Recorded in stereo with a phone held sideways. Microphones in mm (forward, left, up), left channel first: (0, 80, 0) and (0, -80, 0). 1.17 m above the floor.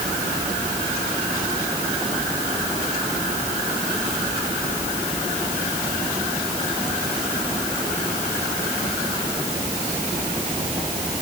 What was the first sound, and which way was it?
Only background noise.